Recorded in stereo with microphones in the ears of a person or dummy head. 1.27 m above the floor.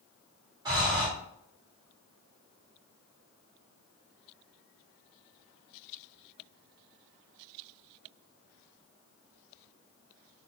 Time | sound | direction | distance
0.7 | breathing | 20° right (ahead or behind) | 1.0 m